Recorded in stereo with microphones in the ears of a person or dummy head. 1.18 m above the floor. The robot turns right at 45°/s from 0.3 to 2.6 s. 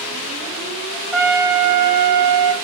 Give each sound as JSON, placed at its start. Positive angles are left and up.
{"t": 1.1, "sound": "a trumpet", "azimuth_deg": 180, "distance_m": 0.5}